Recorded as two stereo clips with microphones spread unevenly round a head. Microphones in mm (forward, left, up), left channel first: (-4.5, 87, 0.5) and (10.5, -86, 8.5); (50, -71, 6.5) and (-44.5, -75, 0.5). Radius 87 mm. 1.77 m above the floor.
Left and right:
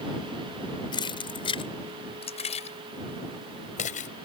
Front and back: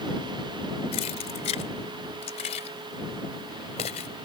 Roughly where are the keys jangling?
Ahead left.